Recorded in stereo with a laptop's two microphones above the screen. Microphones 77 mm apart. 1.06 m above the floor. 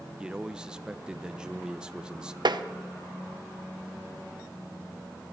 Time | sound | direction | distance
0.2 | a man speaking | 10° right (ahead or behind) | 0.7 m
2.5 | tapping | 70° right (ahead or behind) | 0.8 m